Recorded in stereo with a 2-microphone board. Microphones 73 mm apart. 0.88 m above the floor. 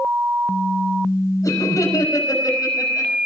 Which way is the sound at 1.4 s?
45° left (ahead or behind).